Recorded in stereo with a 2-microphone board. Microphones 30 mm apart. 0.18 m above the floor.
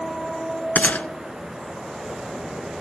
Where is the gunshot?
65° left (ahead or behind), 0.6 m.